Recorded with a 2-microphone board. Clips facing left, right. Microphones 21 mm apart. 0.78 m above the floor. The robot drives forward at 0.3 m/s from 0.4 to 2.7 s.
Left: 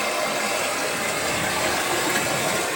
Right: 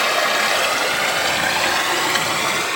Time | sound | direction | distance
0.0 | running water | 65° right (ahead or behind) | 0.8 m